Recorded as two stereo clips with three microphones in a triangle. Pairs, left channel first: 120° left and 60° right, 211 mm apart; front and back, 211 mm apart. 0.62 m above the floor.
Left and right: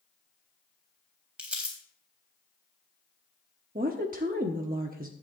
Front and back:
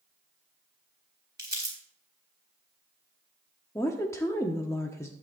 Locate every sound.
1.4 s crumpling: 145° right, 3.5 m
3.8 s a woman speaking: 70° right, 0.9 m